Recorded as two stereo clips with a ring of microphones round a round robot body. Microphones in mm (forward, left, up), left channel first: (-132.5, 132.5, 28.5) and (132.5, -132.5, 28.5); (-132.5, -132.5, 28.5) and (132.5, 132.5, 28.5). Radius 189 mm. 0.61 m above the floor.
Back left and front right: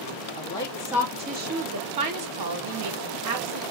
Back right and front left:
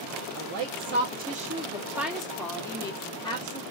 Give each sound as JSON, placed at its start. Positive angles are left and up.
{"t": 0.3, "sound": "a woman speaking", "azimuth_deg": 70, "distance_m": 0.8}